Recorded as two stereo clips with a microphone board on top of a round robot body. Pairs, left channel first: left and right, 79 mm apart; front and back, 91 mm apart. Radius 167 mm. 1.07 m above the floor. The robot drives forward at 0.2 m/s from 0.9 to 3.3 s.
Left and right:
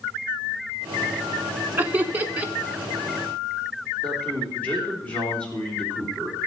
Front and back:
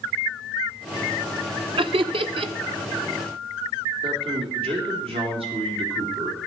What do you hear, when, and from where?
1.8 s laughter: 155° right, 1.0 m; by 2.5 s 160° right, 1.2 m
4.0 s a man speaking: 165° left, 4 m